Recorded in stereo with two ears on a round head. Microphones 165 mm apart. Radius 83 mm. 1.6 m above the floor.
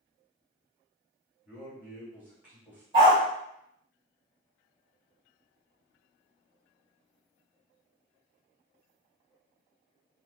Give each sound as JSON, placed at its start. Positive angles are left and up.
{"t": 1.4, "sound": "a man speaking", "side_deg": -10, "distance_m": 1.5}
{"t": 2.9, "sound": "a dog barking", "side_deg": -30, "distance_m": 1.4}